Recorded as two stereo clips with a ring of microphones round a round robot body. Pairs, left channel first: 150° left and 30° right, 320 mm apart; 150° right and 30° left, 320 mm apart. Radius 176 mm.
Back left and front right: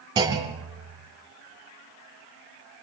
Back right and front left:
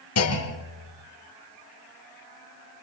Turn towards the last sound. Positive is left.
turn(degrees=-110)